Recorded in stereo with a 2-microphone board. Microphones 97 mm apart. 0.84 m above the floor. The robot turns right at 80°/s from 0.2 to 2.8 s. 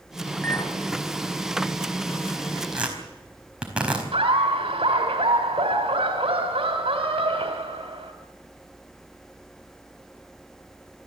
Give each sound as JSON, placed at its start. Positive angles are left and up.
{"t": 0.4, "sound": "a clink", "side_deg": 5, "distance_m": 3.5}
{"t": 2.7, "sound": "tearing paper", "side_deg": -5, "distance_m": 4.5}
{"t": 4.1, "sound": "laughter", "side_deg": -80, "distance_m": 2.5}